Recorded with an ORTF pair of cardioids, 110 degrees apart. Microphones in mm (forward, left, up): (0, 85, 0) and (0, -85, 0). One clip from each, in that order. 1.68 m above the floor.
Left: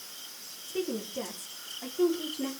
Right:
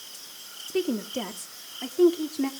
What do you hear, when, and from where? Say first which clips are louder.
0.7 s a woman speaking: right 5 dB; 45° right, 3.5 m; by 2.5 s 40° right, 4.5 m